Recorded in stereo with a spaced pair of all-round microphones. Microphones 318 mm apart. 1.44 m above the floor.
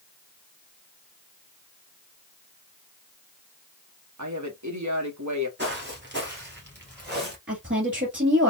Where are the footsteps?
35° right (ahead or behind), 1.6 m; by 7.4 s 30° right (ahead or behind), 1.9 m.